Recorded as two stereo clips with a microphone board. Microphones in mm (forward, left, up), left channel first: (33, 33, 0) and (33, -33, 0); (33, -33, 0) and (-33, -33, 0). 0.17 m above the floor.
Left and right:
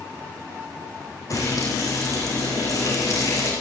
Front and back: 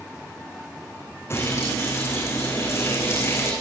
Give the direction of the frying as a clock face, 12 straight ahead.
10 o'clock.